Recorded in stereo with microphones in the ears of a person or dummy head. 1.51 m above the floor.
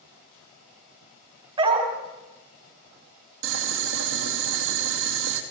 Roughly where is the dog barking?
Right.